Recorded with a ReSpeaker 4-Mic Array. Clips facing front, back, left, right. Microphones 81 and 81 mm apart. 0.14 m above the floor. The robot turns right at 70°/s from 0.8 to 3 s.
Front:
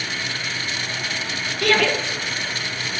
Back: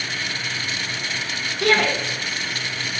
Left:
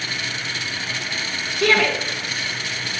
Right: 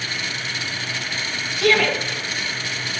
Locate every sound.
1.6 s a shout: 120° left, 2.5 m; by 1.9 s 145° left, 2.5 m